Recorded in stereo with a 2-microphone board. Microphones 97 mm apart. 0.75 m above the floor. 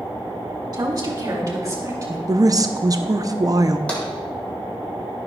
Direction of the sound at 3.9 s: 10° left (ahead or behind).